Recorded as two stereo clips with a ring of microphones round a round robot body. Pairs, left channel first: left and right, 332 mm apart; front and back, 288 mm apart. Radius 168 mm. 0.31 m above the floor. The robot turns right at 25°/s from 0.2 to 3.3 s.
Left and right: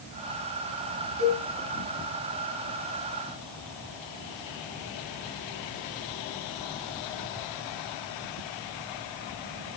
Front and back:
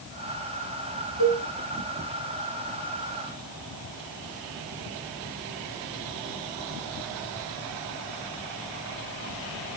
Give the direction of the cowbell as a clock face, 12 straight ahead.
5 o'clock.